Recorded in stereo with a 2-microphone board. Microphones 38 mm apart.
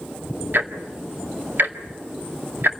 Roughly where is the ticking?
Right.